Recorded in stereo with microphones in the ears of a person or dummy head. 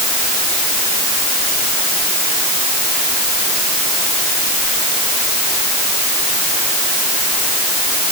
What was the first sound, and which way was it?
Only background noise.